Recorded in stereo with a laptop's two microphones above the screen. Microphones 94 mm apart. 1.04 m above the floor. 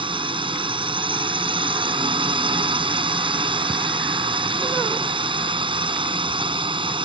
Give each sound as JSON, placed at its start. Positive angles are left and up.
{"t": 0.0, "sound": "a drone", "side_deg": -65}